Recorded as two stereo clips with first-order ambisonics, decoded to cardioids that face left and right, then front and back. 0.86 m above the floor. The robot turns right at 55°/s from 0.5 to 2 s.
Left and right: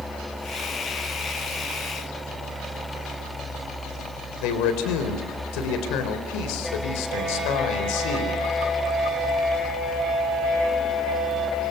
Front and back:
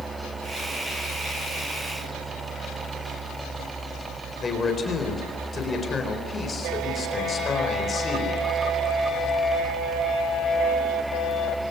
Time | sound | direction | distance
4.4 | a man speaking | 70° left | 4 m